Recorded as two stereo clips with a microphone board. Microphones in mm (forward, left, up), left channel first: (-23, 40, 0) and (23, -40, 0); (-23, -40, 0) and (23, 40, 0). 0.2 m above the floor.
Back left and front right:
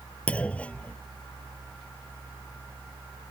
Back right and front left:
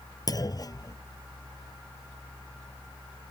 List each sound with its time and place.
0.3 s a clunk: 165° right